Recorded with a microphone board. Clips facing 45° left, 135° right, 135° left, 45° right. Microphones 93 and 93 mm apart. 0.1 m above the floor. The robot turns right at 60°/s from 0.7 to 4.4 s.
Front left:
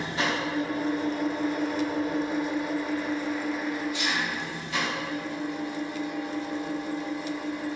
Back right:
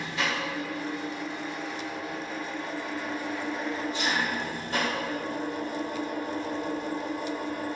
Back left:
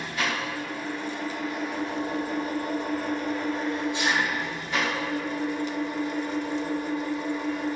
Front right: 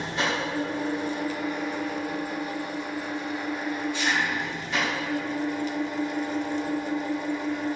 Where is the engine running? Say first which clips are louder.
Front left 2 dB, front right 2 dB; straight ahead, 0.8 m; by 7.8 s 135° right, 0.8 m.